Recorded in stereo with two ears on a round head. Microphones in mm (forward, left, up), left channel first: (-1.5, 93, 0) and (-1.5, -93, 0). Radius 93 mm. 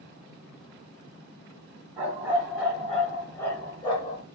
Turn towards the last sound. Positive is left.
turn(degrees=30)  # may be behind; listen again after turning